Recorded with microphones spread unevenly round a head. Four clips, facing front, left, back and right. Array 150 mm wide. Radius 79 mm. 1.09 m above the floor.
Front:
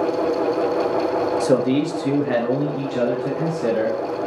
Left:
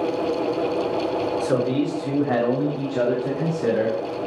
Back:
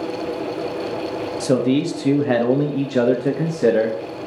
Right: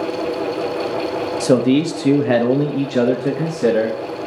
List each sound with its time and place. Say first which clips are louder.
1.4 s a man speaking: right 10 dB, back 3 dB; 70° right, 1.4 m; by 4.0 s 155° right, 1.8 m